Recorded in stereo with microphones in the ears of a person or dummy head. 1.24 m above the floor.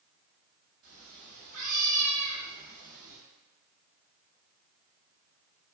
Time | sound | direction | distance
0.8 | a cat meowing | 45° right (ahead or behind) | 1.4 m